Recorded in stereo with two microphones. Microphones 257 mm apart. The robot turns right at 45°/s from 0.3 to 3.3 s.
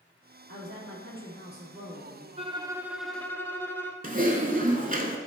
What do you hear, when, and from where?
0.5 s a woman speaking: 85° right, 3 m; by 2.3 s 5° right, 3 m
2.4 s a violin: 30° right, 0.8 m; by 3.9 s 10° left, 0.8 m
4.0 s typing on a keyboard: 35° right (ahead or behind), 1.0 m